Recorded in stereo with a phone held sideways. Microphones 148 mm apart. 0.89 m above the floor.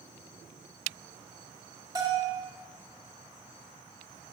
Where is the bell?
25° right (ahead or behind), 1.7 m.